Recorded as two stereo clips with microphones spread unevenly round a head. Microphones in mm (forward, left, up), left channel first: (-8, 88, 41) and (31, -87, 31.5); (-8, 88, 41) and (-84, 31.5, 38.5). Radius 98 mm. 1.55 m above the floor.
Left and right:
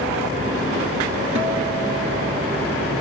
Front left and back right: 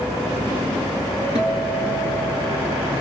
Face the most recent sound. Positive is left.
turn(degrees=-105)